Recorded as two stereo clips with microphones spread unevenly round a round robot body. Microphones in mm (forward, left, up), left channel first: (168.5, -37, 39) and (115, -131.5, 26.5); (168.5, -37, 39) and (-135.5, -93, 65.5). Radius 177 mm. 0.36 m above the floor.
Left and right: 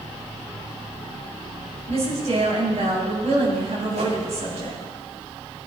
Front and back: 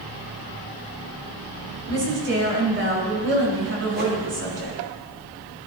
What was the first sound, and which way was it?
A woman speaking, 115° right.